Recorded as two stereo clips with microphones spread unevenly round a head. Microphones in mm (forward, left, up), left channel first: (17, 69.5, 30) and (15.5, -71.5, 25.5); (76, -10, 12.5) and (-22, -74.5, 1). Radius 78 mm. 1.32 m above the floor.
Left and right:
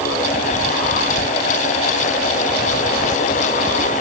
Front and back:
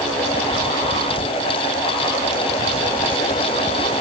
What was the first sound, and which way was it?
Only background noise.